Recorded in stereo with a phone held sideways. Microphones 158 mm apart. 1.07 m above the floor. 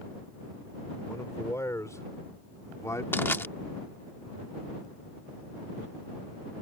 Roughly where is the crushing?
Centre.